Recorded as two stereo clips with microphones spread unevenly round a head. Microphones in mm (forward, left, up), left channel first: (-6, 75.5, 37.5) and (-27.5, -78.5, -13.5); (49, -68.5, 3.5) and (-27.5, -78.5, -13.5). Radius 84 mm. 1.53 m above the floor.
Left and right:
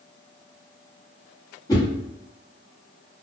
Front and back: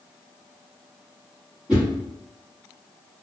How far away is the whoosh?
About 1.1 m.